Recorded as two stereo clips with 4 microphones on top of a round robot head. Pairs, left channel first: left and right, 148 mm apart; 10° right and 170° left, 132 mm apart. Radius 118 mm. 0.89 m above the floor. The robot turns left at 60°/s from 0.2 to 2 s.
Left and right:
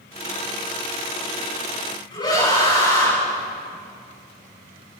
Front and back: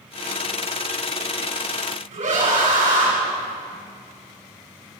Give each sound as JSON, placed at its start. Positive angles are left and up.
{"t": 2.1, "sound": "a scream", "azimuth_deg": 150, "distance_m": 8.0}